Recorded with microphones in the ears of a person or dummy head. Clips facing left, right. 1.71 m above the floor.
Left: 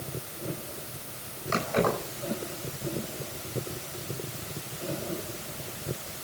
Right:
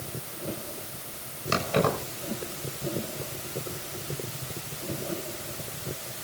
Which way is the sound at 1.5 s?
50° right (ahead or behind).